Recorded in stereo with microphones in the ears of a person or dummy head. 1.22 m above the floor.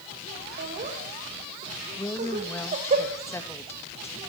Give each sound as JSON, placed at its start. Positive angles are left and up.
{"t": 0.6, "sound": "laughter", "side_deg": -40, "distance_m": 4.0}
{"t": 2.0, "sound": "a woman speaking", "side_deg": 15, "distance_m": 1.2}